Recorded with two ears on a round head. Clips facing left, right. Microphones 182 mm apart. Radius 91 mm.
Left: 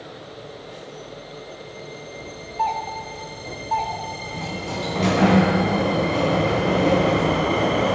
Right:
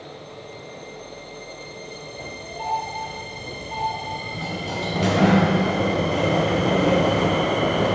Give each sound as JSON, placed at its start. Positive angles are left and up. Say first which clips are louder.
{"t": 2.6, "sound": "a doorbell", "louder": "left 2 dB", "side_deg": 75, "distance_m": 6.5}
{"t": 4.3, "sound": "a sliding door", "louder": "left 1 dB", "side_deg": -5, "distance_m": 5.0}